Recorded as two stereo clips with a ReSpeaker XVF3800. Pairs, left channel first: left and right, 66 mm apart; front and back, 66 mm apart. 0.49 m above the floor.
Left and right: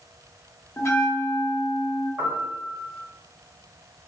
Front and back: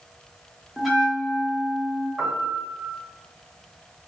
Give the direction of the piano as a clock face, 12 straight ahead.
4 o'clock.